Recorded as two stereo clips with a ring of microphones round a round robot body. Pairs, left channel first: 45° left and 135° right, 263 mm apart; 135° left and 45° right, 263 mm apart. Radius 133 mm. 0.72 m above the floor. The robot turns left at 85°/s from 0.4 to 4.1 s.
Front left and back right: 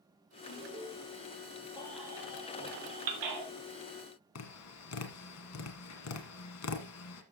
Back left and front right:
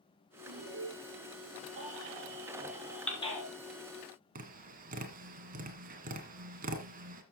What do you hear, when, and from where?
0.5 s an alarm: 35° right, 6 m; by 0.9 s 75° right, 6 m
1.8 s a baby crying: 25° right, 3 m; by 3.5 s 170° right, 3 m
4.3 s tapping: 15° left, 1.6 m